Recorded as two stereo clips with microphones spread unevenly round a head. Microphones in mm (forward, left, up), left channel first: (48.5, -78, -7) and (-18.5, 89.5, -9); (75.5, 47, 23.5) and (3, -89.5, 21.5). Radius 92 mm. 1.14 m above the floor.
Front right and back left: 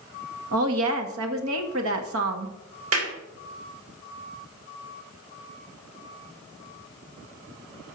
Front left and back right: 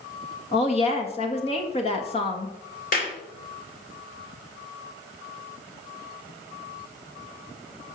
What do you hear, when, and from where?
0.5 s a woman speaking: 120° left, 1.9 m
2.9 s a clap: 110° left, 3 m